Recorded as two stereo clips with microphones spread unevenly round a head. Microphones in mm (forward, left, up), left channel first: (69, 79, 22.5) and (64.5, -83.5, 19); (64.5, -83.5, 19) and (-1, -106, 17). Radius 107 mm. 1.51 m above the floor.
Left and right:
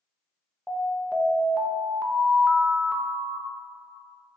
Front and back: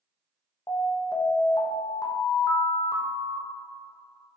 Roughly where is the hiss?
No hiss in this recording.